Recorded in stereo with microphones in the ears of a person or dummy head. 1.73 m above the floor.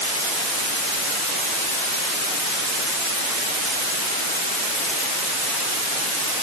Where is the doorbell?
I don't hear a doorbell.